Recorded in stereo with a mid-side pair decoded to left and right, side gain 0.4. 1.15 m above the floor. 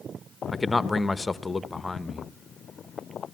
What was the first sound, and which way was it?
A man speaking, 20° left.